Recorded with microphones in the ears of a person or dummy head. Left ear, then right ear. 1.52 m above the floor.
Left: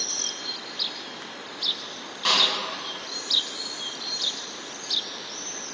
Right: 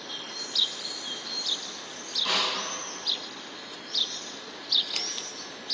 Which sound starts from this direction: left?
A snare drum, at 2.2 s.